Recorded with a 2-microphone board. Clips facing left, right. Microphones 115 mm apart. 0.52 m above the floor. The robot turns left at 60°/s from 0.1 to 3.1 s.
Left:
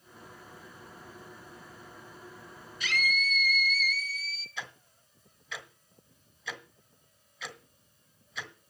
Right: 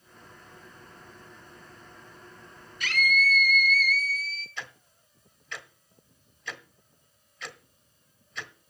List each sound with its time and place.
2.8 s a scream: 60° right (ahead or behind), 2.5 m; by 4.5 s 55° right (ahead or behind), 2.5 m
4.6 s ticking: 5° left (ahead or behind), 1.1 m